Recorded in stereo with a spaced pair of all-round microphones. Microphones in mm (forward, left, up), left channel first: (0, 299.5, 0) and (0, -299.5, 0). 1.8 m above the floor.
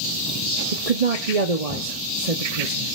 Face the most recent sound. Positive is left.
turn(degrees=-75)  # may be behind; listen again after turning